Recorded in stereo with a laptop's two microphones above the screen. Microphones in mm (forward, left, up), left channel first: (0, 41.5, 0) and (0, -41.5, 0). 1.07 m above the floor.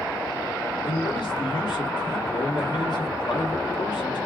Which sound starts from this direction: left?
A man speaking, at 0.8 s.